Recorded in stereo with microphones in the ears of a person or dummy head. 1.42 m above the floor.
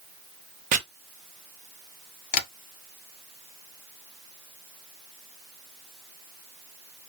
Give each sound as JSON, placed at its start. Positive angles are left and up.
{"t": 0.7, "sound": "chopping", "side_deg": -45, "distance_m": 0.7}
{"t": 2.3, "sound": "tapping", "side_deg": 50, "distance_m": 0.9}